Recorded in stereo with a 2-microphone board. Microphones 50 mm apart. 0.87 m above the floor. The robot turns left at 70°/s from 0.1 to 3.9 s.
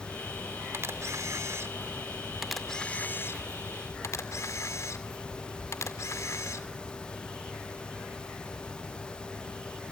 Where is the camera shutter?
55° right (ahead or behind), 2 m; by 6.7 s 80° left, 2 m.